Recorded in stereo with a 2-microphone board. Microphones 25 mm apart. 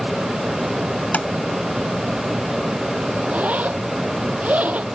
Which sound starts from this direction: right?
A zipper, at 3.2 s.